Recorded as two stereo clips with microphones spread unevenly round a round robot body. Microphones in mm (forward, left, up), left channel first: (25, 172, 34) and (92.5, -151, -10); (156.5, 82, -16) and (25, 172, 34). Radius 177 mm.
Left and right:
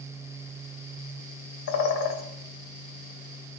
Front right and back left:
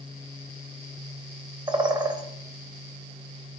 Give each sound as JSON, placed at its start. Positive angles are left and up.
{"t": 1.7, "sound": "a bird", "azimuth_deg": 80, "distance_m": 1.6}